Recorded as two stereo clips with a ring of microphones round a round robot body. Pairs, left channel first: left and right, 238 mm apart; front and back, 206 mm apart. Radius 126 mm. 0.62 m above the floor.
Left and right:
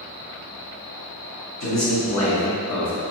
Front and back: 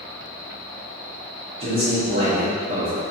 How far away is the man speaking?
About 1.3 m.